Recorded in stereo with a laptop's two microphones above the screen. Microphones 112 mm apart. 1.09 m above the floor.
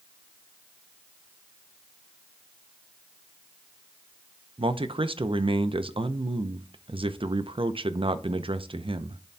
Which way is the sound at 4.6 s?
55° right (ahead or behind).